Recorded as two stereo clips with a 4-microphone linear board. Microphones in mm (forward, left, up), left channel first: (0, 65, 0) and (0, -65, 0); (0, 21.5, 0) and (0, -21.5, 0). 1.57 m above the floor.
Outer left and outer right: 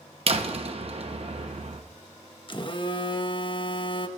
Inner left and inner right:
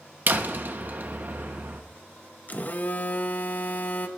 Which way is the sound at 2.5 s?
40° left (ahead or behind).